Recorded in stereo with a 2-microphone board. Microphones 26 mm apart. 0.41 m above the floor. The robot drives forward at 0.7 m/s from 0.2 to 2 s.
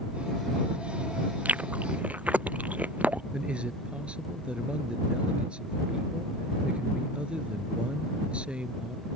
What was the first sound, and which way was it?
Chewing, 85° right.